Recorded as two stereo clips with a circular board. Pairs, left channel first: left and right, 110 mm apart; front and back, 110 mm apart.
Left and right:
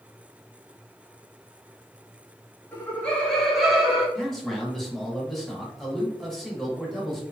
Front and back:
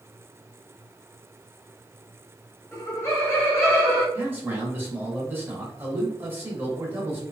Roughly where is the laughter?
Ahead left.